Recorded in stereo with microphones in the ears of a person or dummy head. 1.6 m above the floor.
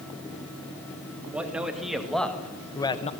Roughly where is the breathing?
I don't hear breathing.